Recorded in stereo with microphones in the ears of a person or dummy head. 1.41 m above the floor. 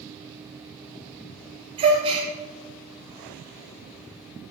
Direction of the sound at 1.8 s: 35° right (ahead or behind).